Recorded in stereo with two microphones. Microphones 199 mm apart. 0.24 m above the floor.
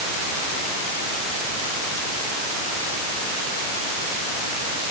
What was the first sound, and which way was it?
Only background noise.